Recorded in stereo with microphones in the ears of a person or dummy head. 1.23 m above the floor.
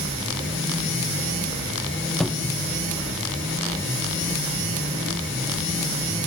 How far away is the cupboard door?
About 1.1 m.